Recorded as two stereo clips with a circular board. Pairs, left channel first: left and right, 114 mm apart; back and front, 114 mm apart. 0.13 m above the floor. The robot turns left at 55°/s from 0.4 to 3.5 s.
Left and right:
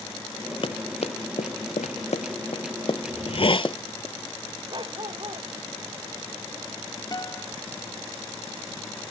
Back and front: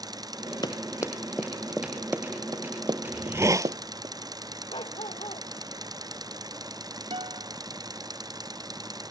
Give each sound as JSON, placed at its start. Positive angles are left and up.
{"t": 0.6, "sound": "running footsteps", "azimuth_deg": 130}
{"t": 3.1, "sound": "a hiss", "azimuth_deg": 80}
{"t": 4.7, "sound": "a dog barking", "azimuth_deg": -140}
{"t": 7.1, "sound": "a guitar", "azimuth_deg": 35}